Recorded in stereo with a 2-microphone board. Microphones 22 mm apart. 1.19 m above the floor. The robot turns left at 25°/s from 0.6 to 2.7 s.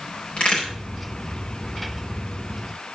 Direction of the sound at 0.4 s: 50° left (ahead or behind).